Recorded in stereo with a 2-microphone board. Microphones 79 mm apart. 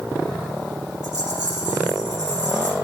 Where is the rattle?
60° right (ahead or behind), 3.5 m.